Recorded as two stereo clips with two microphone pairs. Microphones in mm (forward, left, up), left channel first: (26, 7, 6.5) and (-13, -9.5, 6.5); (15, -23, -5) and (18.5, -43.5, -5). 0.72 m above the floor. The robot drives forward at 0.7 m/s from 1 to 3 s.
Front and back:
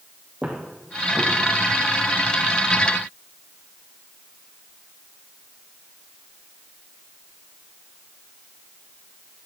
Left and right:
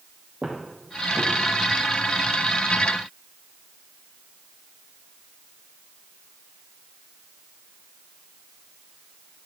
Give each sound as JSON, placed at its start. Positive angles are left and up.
{"t": 0.4, "sound": "footsteps", "azimuth_deg": -85, "distance_m": 2.0}